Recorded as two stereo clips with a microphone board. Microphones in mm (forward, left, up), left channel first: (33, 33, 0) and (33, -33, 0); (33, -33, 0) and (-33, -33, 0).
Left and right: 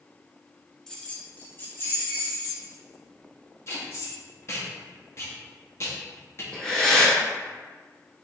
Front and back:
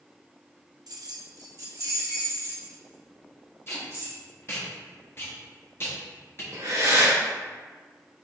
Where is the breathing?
170° left, 1.1 m.